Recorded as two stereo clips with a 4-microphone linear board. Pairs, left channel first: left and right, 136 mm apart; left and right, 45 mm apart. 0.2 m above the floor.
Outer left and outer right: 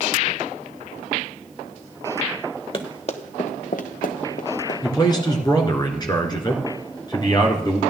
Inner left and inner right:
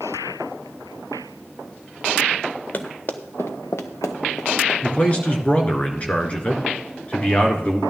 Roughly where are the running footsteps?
Left.